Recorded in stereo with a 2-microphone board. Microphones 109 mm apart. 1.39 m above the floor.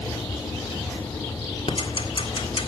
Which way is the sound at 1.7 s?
55° left (ahead or behind).